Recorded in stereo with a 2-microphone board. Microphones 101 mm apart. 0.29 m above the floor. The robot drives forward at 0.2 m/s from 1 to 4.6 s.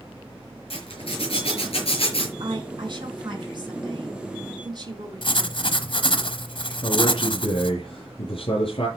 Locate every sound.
0.7 s a zipper: 65° left (ahead or behind), 6.5 m
2.4 s a woman speaking: 55° right (ahead or behind), 2.5 m; by 6.0 s 45° right (ahead or behind), 3 m
5.2 s writing: 55° left (ahead or behind), 1.0 m
6.8 s a man speaking: 55° left (ahead or behind), 6 m